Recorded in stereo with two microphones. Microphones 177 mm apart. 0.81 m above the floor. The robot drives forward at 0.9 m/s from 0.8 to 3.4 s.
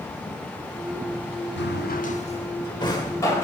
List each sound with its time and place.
1.6 s a drawer: 75° left (ahead or behind), 0.5 m; by 3.4 s 15° left (ahead or behind), 1.8 m